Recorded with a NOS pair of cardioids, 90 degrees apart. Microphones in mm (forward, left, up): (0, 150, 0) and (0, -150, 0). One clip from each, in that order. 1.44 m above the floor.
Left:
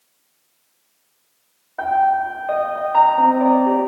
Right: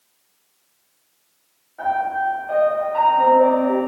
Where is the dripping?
No dripping in this recording.